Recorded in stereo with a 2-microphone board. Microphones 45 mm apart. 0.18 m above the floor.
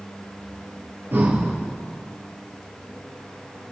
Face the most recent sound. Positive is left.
turn(degrees=-55)  # may be behind; listen again after turning